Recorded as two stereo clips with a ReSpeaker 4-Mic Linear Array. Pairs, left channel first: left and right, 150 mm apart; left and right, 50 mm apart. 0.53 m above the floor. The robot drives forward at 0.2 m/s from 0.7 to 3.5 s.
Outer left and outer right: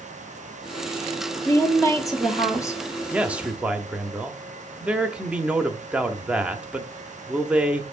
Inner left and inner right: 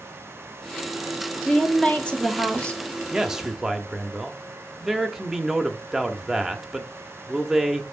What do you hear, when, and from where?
1.4 s a woman speaking: 20° left (ahead or behind), 1.1 m
3.1 s a man speaking: 10° right (ahead or behind), 0.6 m